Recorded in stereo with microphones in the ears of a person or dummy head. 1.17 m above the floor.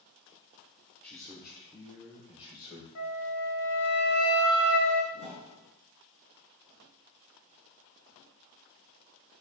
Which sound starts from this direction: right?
A whoosh, at 5.1 s.